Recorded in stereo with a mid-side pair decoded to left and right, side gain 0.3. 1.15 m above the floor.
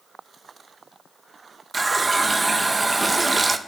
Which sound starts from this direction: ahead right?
A running tap, at 1.7 s.